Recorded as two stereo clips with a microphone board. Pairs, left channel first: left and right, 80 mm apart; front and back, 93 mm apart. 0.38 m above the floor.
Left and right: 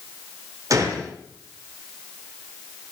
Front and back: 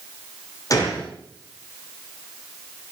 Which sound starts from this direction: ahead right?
A gunshot, at 0.7 s.